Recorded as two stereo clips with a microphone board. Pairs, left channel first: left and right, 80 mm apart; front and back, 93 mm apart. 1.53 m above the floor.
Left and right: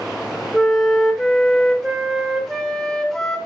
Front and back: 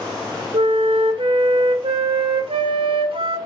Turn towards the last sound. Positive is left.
turn(degrees=175)